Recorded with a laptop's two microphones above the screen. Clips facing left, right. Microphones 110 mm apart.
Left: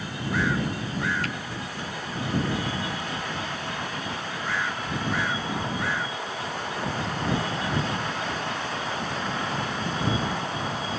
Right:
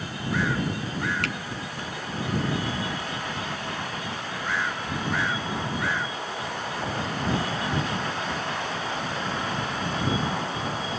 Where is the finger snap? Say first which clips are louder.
Right 1 dB; 70° right (ahead or behind).